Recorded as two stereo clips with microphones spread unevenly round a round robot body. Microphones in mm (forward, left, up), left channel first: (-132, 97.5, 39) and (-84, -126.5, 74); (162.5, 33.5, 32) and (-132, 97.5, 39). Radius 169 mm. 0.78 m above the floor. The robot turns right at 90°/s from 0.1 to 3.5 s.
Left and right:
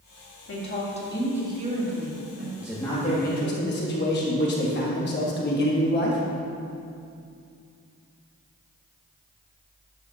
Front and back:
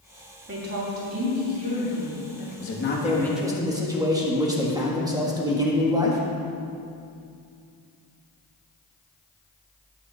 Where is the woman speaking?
115° left, 2.5 m; by 2.5 s 60° right, 2.5 m.